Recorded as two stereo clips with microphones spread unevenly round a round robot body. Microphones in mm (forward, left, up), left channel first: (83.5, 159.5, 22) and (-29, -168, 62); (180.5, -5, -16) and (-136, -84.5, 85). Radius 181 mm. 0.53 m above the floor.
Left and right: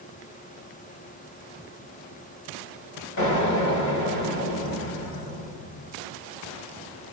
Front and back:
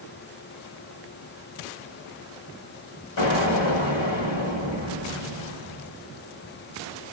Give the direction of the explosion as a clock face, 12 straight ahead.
11 o'clock.